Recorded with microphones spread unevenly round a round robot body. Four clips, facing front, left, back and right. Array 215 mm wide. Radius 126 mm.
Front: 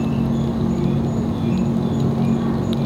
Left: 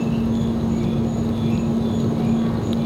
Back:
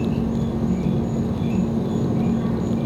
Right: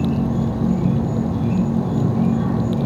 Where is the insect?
70° right, 1.5 m.